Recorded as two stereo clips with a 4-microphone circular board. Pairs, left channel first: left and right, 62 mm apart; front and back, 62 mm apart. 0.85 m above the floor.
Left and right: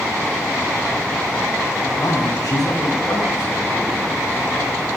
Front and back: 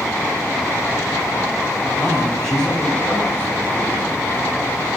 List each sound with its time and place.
2.0 s a man speaking: 90° left, 5 m; by 4.0 s 60° left, 6 m